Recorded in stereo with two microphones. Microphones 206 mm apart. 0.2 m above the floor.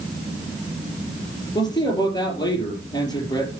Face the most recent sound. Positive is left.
turn(degrees=20)  # may be behind; listen again after turning